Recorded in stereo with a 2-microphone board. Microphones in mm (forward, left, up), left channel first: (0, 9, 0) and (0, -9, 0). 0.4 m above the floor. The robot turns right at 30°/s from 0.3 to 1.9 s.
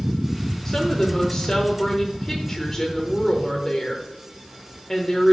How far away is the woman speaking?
About 1.0 m.